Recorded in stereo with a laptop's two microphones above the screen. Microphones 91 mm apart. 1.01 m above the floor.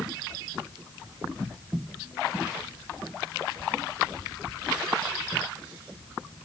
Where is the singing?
I don't hear singing.